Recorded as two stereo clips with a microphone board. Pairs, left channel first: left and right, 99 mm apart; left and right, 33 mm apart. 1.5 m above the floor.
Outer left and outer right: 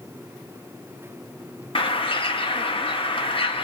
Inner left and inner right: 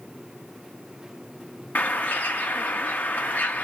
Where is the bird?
65° left (ahead or behind), 1.0 m.